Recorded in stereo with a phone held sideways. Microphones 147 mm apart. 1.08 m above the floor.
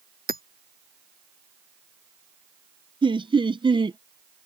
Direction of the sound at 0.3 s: 80° right.